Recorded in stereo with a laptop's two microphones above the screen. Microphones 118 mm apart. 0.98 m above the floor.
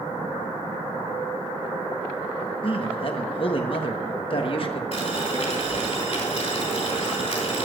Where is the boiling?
60° left (ahead or behind), 3 m.